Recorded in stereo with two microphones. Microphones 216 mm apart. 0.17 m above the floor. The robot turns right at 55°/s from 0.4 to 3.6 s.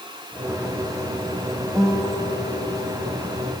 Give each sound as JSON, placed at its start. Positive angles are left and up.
{"t": 1.8, "sound": "a guitar", "azimuth_deg": -5, "distance_m": 2.0}